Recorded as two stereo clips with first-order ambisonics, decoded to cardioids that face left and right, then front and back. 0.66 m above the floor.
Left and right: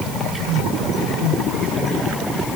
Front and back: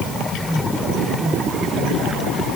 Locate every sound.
Only background noise.